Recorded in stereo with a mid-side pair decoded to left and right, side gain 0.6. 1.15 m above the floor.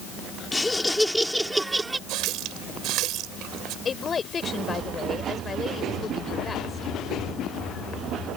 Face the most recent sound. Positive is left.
turn(degrees=30)